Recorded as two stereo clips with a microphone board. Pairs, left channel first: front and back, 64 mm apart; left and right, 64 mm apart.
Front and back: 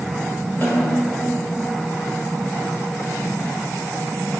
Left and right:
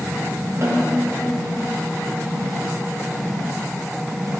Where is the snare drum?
50° right, 1.9 m.